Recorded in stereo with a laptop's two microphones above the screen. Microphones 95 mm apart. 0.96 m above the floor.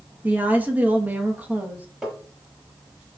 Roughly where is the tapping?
Centre.